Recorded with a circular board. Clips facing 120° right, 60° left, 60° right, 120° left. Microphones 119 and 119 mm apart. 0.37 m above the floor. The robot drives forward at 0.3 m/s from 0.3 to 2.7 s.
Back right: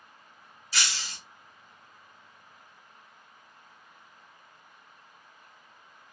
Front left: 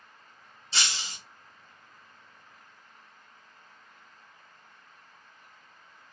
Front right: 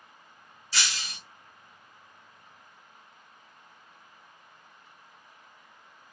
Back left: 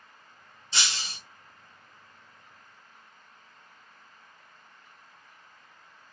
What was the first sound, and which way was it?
Breaking glass, 85° left.